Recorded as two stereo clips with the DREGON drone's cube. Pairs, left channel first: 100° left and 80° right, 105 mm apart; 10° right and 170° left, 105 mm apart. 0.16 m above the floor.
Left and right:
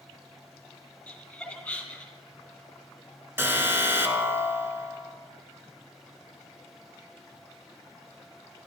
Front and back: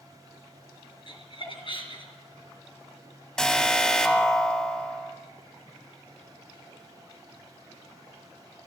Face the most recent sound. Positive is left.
turn(degrees=-85)